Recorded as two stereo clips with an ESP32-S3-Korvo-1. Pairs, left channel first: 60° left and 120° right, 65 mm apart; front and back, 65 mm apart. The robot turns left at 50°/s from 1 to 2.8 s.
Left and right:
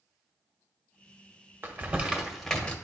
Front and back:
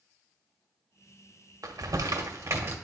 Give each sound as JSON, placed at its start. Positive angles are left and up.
{"t": 1.6, "sound": "crumpling", "azimuth_deg": -170, "distance_m": 0.9}